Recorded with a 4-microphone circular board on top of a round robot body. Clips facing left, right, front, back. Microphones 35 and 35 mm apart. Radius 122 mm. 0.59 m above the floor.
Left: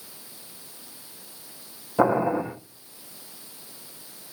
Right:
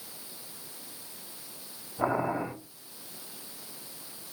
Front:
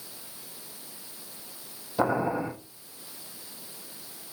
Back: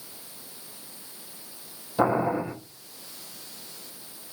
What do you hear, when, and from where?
2.0 s boiling: 90° left, 7.5 m